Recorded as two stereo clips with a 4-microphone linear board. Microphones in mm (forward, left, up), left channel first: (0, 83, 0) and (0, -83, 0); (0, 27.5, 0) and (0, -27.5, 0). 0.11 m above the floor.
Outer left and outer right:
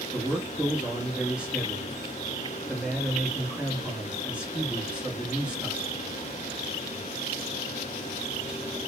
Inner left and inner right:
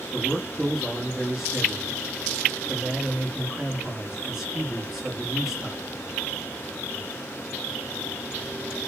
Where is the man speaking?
5° right (ahead or behind), 1.2 m.